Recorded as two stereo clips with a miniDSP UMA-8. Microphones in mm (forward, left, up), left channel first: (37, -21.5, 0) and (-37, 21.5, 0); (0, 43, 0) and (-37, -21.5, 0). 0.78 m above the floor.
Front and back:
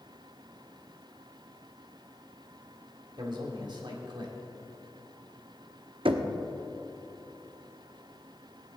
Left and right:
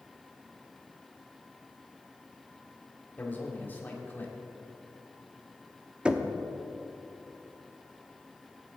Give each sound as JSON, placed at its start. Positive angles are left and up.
{"t": 3.2, "sound": "a man speaking", "azimuth_deg": 120, "distance_m": 2.5}
{"t": 6.0, "sound": "knocking", "azimuth_deg": 160, "distance_m": 0.8}